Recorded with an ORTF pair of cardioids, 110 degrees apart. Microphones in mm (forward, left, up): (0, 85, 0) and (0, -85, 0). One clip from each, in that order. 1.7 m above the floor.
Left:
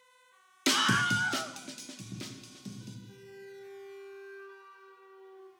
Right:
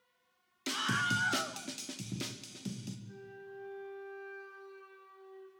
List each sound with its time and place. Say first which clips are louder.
0.7 s a scream: left 6 dB; 55° left, 0.6 m; by 3.0 s 20° right, 2.5 m
3.1 s a flute: left 1 dB; 5° left, 6 m